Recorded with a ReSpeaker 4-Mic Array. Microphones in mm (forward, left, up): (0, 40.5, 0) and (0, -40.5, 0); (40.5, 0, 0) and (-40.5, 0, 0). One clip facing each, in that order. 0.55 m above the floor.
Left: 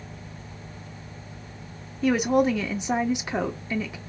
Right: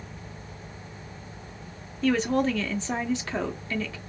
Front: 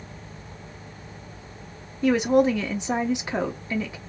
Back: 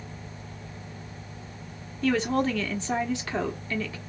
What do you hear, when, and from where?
2.0 s a woman speaking: 40° left, 0.9 m